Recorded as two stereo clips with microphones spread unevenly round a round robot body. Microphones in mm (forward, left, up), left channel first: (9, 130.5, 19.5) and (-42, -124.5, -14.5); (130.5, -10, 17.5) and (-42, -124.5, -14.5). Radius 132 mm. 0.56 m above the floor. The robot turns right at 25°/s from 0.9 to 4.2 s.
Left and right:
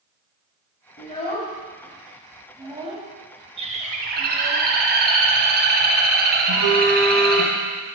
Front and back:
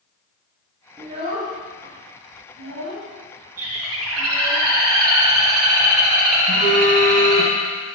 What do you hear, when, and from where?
1.0 s a child speaking: 140° left, 3 m; by 4.6 s 140° right, 3 m
3.6 s a bird: 170° right, 1.9 m; by 7.5 s 155° right, 1.9 m
6.5 s a phone buzzing: 120° right, 3.5 m